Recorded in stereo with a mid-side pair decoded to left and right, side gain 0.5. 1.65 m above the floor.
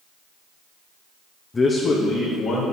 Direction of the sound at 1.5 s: 25° left.